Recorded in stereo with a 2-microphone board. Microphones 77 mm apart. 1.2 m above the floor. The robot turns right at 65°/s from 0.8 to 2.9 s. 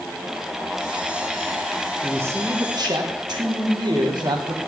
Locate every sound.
2.0 s a man speaking: 160° right, 1.4 m; by 4.6 s 100° right, 1.4 m